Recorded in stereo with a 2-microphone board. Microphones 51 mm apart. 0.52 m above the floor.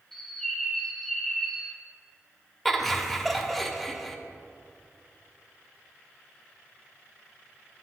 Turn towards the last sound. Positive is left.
turn(degrees=0)  # may be behind; listen again after turning